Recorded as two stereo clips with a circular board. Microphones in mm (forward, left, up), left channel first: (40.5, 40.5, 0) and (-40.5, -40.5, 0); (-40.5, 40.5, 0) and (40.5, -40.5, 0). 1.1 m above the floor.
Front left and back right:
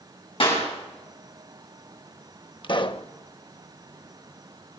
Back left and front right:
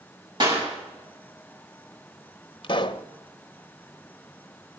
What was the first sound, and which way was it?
A clap, 5° left.